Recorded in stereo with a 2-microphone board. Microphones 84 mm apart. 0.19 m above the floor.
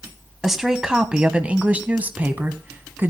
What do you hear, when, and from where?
0.4 s a woman speaking: 5° right (ahead or behind), 1.2 m; by 3.1 s 25° right (ahead or behind), 1.6 m